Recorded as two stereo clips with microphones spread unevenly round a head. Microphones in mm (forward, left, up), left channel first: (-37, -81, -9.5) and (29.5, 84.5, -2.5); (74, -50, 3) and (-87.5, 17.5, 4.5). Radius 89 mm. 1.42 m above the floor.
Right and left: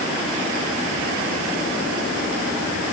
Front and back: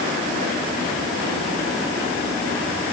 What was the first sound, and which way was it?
Only background noise.